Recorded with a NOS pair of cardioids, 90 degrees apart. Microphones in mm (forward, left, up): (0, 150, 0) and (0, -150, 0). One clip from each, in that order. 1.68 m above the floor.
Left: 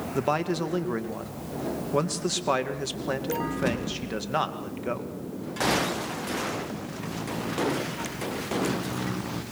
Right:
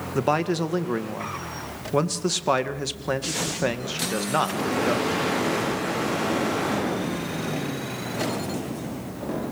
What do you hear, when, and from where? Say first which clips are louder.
0.1 s a man speaking: right 3 dB; 20° right, 2 m